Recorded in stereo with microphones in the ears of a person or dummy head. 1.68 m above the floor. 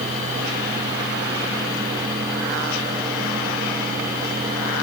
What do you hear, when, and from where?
Only background noise.